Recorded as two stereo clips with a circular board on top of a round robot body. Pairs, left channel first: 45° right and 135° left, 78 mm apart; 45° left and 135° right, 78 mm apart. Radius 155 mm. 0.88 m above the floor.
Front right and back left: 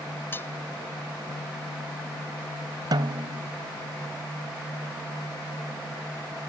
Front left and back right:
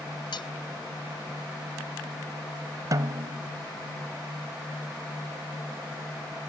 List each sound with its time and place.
0.3 s cutlery clinking: 20° left
2.9 s a snare drum: 175° left